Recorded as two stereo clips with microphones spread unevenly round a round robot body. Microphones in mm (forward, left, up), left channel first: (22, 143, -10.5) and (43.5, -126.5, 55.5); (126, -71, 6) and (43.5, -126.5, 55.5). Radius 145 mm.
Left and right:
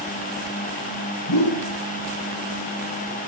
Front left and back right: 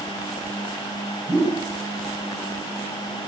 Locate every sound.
1.3 s a whoosh: 115° left, 3.5 m